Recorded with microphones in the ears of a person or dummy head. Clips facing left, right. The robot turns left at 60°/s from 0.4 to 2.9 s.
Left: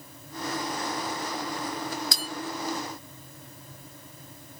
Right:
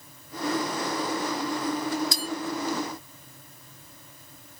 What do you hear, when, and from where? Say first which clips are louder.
2.1 s a bell: right 4 dB; 55° left (ahead or behind), 2 m; by 2.3 s 60° left (ahead or behind), 2 m